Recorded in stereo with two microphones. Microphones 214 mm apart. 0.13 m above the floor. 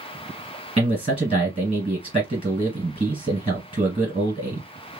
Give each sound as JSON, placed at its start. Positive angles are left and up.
{"t": 0.8, "sound": "a man speaking", "side_deg": -30, "distance_m": 1.9}